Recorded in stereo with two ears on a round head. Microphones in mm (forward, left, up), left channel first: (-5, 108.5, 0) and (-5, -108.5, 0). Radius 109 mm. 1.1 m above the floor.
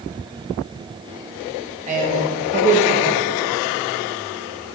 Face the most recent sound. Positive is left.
turn(degrees=-30)  # may be behind; listen again after turning